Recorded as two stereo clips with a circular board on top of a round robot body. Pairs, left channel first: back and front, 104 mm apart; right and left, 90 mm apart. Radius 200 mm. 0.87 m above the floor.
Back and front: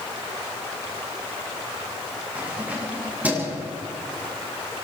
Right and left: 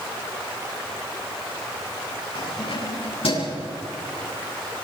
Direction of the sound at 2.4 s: 75° right.